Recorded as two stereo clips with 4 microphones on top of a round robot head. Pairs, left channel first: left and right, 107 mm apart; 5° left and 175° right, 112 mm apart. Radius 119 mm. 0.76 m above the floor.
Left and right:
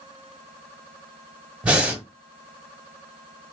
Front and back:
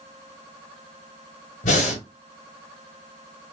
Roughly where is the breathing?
Ahead.